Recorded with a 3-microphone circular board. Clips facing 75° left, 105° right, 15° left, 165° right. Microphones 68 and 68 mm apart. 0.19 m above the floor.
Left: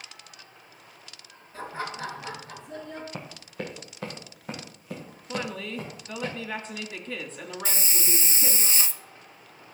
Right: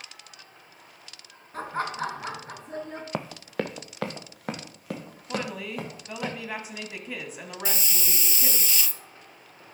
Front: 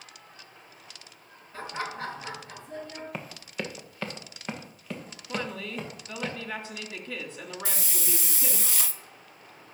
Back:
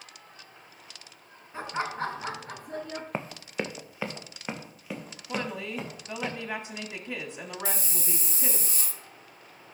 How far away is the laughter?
About 2.5 m.